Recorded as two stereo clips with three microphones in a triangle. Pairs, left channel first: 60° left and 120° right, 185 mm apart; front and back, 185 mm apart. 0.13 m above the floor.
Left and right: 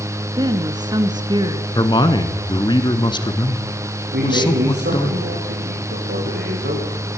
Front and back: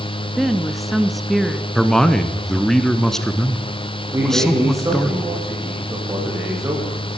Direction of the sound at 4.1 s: 105° right.